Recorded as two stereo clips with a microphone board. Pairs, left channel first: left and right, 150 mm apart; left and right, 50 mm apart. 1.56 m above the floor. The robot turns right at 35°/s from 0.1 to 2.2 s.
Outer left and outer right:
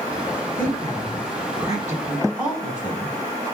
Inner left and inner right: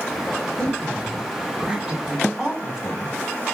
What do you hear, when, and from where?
0.6 s a woman speaking: 65° right, 4 m; by 3.2 s 10° right, 4 m